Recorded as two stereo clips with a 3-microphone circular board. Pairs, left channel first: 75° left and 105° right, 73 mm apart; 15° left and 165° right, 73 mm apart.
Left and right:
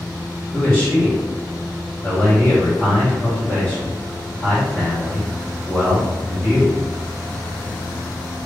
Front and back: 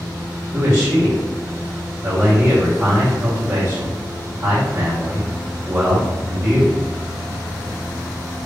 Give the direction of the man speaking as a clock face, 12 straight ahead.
7 o'clock.